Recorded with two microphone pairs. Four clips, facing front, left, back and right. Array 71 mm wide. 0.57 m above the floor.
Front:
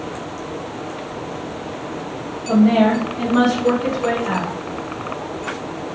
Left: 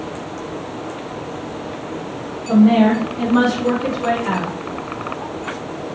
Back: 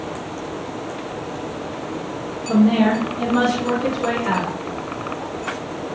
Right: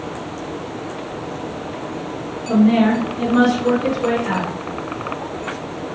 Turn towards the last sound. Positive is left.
turn(degrees=150)